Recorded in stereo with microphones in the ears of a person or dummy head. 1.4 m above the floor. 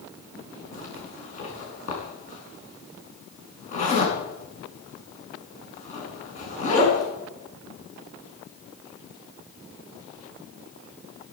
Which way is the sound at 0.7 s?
45° left (ahead or behind).